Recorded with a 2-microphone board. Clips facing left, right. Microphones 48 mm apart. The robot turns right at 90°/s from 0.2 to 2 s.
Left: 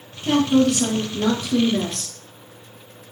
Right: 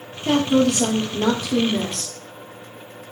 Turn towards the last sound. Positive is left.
turn(degrees=10)